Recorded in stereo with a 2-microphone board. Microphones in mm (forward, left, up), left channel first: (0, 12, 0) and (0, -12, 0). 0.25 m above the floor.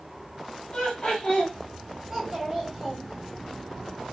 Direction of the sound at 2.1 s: 20° right (ahead or behind).